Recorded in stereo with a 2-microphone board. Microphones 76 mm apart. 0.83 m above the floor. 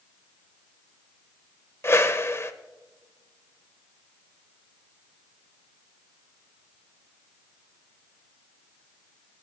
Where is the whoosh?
35° left (ahead or behind), 0.7 m.